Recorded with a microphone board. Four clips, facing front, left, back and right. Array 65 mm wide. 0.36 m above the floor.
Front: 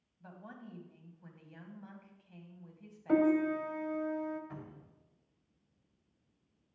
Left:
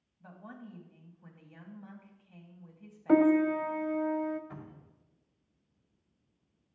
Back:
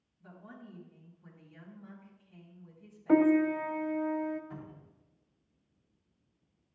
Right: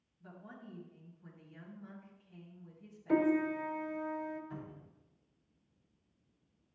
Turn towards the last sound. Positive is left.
turn(degrees=60)